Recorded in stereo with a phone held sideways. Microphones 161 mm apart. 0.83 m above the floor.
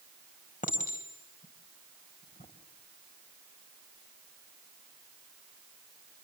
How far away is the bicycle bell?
No bicycle bell in this recording.